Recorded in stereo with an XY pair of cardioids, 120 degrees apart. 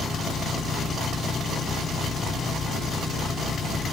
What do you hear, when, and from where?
0.0 s an engine running: 40° left